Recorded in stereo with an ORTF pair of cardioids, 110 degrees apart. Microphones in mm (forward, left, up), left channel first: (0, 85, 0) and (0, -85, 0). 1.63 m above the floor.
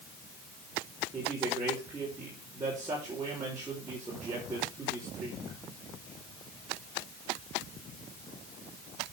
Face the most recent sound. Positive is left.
turn(degrees=-20)